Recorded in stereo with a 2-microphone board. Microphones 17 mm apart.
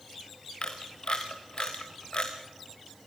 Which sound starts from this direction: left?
A camera shutter, at 0.6 s.